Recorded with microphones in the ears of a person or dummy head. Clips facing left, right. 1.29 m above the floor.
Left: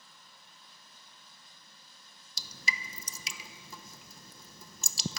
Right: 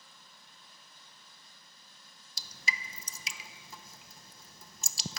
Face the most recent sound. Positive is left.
turn(degrees=80)